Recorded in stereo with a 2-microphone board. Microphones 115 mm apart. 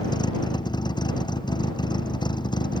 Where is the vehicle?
40° left (ahead or behind).